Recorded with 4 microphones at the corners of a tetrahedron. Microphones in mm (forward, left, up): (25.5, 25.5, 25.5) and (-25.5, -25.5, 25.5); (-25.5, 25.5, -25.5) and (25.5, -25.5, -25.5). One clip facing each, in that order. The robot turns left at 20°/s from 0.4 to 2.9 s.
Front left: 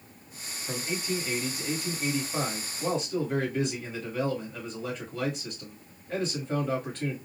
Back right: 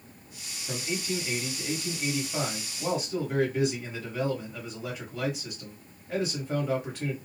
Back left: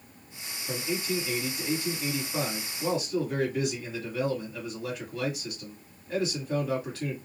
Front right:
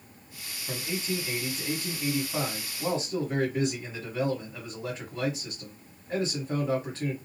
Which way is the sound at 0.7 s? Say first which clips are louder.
Even, back left 2 dB; 15° right.